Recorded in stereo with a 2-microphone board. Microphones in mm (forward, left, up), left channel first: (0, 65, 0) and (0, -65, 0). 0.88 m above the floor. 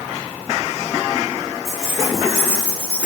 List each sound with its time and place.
1.6 s keys jangling: centre (ahead or behind), 6.5 m; by 3.1 s 10° left (ahead or behind), 6 m